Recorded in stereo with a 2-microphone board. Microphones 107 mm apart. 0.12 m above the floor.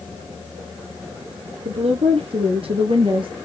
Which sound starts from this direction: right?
A woman speaking, at 1.6 s.